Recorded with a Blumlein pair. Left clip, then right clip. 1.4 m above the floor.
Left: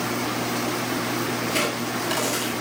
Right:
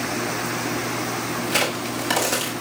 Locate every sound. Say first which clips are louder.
1.5 s a crack: right 4 dB; 50° right, 8.5 m